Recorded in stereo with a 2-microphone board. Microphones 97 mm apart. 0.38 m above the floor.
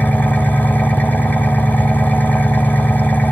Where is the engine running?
20° left (ahead or behind), 1.0 m.